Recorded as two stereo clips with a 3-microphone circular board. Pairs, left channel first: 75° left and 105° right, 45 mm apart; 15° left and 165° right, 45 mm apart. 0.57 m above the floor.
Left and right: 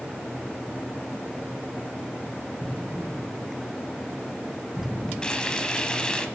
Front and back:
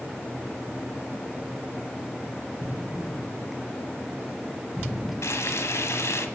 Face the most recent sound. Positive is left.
turn(degrees=0)